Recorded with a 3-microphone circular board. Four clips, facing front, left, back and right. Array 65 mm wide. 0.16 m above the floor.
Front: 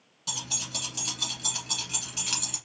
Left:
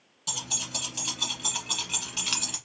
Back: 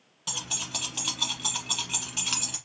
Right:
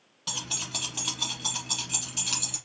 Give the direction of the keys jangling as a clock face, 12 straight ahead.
5 o'clock.